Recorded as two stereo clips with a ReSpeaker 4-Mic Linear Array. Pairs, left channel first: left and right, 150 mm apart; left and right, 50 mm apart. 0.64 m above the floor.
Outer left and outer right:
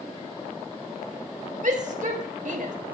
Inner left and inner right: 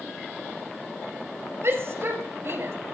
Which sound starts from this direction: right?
A shout, at 1.6 s.